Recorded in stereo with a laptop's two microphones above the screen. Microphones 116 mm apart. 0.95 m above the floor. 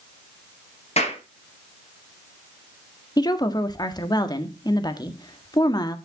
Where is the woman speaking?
35° left (ahead or behind), 1.7 m.